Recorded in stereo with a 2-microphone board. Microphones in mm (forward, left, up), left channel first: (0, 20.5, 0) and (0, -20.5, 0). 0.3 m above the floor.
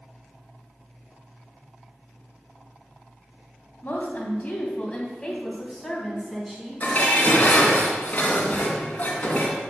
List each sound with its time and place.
3.8 s a woman speaking: 45° left (ahead or behind), 2.5 m; by 7.8 s 20° right (ahead or behind), 3.5 m
6.8 s dishes clattering: 35° left (ahead or behind), 2 m